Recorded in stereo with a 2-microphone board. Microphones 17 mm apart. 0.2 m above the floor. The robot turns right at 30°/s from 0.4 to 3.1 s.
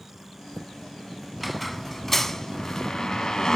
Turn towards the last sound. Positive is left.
turn(degrees=50)